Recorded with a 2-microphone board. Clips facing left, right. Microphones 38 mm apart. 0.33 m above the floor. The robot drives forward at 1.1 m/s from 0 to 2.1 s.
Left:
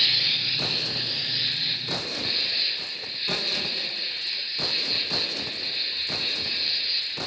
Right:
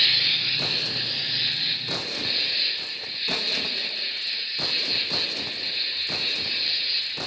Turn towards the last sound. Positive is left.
turn(degrees=-5)  # may be behind; listen again after turning